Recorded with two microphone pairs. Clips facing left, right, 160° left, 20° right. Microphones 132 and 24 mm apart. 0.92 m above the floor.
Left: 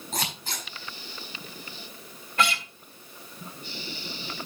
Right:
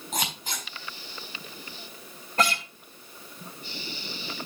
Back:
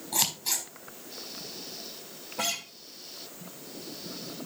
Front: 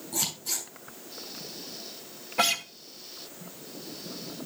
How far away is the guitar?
About 1.4 m.